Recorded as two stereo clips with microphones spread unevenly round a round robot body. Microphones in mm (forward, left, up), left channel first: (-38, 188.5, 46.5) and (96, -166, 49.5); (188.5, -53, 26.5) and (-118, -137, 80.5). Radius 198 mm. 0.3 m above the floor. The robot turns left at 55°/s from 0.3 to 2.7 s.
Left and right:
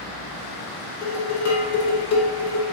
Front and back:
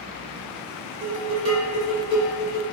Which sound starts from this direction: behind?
Dishes clattering, at 1.0 s.